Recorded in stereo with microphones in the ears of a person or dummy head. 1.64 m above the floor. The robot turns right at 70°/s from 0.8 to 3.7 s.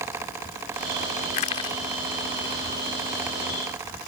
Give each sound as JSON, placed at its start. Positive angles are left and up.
{"t": 1.3, "sound": "crushing", "side_deg": 45}